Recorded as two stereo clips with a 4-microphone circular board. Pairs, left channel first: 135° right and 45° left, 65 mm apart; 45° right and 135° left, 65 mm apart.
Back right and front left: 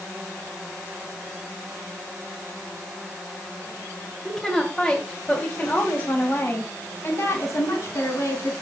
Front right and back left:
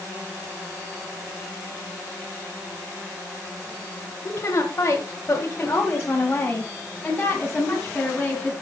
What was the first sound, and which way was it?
A woman speaking, 45° right.